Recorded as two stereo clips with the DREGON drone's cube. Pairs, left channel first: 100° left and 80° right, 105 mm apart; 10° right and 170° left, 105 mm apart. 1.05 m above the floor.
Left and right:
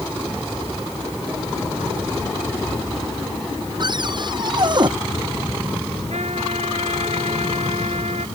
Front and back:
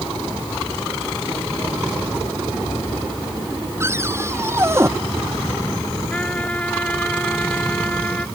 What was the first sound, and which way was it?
A cupboard door, 125° right.